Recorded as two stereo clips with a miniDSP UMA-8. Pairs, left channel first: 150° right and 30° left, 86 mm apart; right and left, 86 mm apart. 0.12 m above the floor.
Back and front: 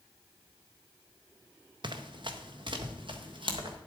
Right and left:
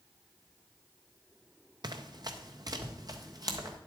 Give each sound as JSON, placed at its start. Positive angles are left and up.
{"t": 1.8, "sound": "running footsteps", "azimuth_deg": 55, "distance_m": 1.0}